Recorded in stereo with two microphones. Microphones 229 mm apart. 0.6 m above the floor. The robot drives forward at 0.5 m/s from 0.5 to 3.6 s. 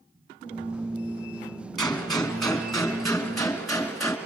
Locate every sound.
1.8 s a gunshot: centre (ahead or behind), 3 m